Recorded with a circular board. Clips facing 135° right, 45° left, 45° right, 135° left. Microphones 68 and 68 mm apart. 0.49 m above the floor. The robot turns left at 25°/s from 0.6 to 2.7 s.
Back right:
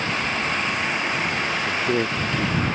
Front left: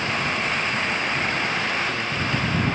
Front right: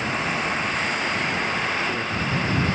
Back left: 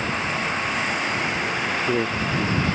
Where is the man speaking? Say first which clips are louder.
Back right 3 dB, back left 2 dB; 165° right; by 2.5 s 170° left.